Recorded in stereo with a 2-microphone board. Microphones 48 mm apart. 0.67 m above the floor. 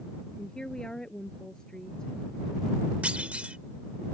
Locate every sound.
0.4 s a woman speaking: 15° left (ahead or behind)
3.0 s a clunk: 30° right (ahead or behind)